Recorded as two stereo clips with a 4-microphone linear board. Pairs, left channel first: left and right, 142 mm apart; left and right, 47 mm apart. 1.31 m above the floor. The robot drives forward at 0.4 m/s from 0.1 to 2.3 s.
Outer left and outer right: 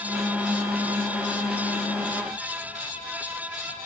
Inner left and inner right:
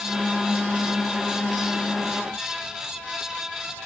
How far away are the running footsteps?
I don't hear running footsteps.